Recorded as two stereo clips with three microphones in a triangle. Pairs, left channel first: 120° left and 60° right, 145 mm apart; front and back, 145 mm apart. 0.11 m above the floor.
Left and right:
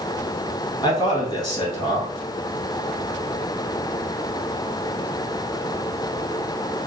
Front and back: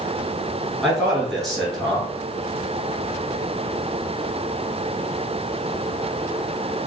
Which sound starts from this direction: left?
A man speaking, at 0.8 s.